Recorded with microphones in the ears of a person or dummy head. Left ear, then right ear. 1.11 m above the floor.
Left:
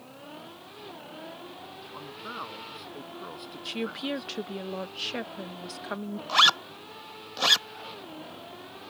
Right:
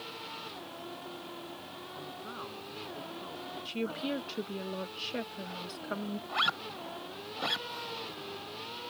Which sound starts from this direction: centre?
A woman speaking, at 3.6 s.